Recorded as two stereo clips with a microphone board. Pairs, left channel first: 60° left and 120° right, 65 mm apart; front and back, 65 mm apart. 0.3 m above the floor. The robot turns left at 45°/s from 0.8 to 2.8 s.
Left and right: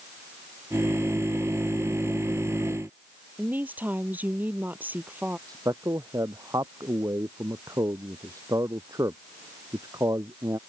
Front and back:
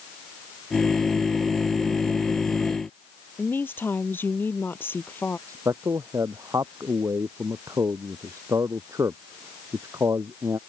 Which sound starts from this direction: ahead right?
A woman speaking, at 3.4 s.